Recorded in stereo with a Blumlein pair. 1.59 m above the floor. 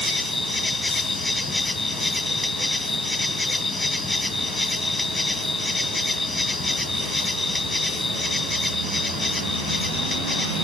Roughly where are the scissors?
No scissors in this recording.